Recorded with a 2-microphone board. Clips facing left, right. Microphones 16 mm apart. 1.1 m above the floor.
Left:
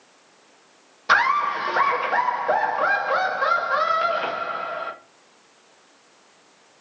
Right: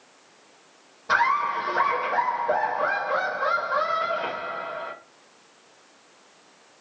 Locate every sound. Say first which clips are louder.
1.1 s laughter: left 3 dB; 50° left (ahead or behind), 0.7 m